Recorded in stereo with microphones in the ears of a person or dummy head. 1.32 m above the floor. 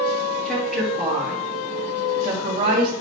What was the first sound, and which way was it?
A woman speaking, 5° left (ahead or behind).